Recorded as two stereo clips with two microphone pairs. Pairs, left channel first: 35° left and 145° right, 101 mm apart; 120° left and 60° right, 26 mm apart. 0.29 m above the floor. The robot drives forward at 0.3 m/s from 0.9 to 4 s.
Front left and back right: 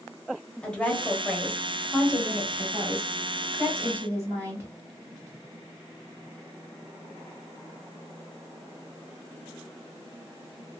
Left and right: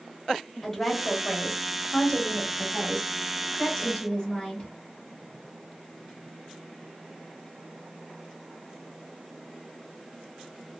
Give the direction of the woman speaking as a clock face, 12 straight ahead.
9 o'clock.